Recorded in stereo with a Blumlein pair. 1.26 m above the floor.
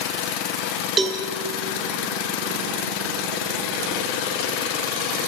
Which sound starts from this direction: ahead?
A cowbell, at 1.0 s.